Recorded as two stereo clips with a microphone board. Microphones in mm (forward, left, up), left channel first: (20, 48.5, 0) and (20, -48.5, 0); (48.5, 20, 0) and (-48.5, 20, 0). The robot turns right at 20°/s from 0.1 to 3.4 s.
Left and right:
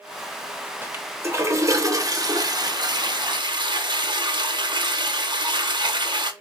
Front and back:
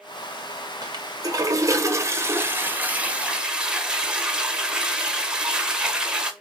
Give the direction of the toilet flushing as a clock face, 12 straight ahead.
5 o'clock.